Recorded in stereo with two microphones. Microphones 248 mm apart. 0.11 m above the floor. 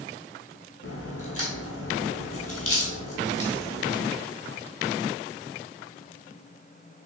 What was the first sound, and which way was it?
A crack, 65° left (ahead or behind).